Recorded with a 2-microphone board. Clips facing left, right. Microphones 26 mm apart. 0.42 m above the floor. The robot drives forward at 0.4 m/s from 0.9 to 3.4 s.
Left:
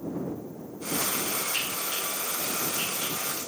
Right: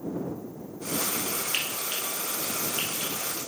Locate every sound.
1.5 s frying: 65° right (ahead or behind), 4 m; by 3.4 s 55° right (ahead or behind), 4.5 m